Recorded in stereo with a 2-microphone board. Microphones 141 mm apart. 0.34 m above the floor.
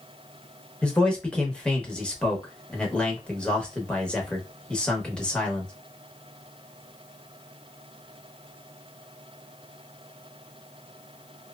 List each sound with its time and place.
0.8 s a man speaking: 5° left (ahead or behind), 0.9 m